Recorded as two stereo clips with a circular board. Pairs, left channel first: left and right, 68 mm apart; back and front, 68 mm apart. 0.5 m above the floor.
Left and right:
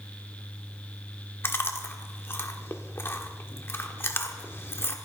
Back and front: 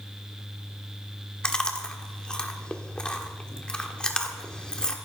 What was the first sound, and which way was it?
Chewing, 110° left.